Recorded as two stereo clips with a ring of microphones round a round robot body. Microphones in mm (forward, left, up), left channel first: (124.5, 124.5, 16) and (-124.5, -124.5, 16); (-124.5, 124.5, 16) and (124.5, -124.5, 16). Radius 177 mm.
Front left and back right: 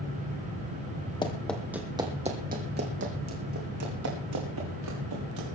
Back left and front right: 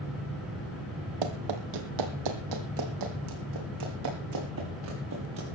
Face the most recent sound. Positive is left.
turn(degrees=-95)